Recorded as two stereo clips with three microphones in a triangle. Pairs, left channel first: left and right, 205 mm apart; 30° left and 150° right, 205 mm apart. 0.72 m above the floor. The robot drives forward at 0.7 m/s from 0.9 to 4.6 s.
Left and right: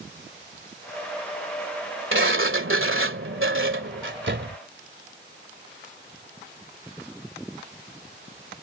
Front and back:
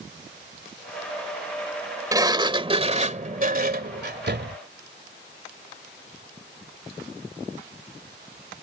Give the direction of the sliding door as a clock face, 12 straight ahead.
3 o'clock.